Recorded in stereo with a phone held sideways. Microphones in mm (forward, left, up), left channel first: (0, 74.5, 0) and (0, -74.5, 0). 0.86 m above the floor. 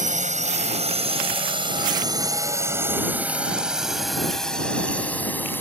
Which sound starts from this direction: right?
A drone, at 0.0 s.